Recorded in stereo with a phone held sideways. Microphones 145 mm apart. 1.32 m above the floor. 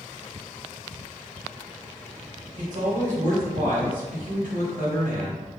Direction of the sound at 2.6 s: 60° right (ahead or behind).